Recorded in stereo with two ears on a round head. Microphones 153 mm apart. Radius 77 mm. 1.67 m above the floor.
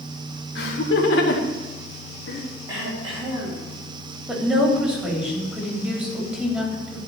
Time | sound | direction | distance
0.6 | laughter | 65° left (ahead or behind) | 1.9 m
2.7 | throat clearing | 30° right (ahead or behind) | 5 m
4.3 | a woman speaking | 5° right (ahead or behind) | 3.5 m